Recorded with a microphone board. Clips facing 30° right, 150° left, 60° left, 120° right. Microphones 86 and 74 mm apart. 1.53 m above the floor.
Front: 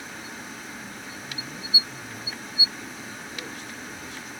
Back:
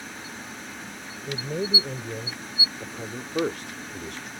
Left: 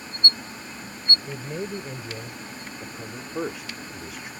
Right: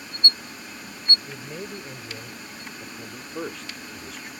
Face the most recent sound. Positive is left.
turn(degrees=145)